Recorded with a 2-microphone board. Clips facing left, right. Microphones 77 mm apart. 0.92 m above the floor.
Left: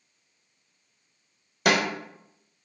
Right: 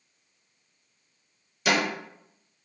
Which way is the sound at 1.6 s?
55° left (ahead or behind).